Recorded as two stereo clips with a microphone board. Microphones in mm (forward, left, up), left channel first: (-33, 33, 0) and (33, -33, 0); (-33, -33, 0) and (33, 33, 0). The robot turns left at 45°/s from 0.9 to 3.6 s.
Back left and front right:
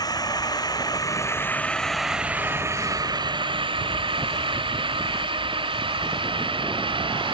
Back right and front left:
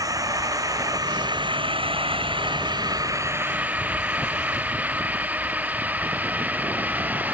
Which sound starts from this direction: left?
A drone, at 0.0 s.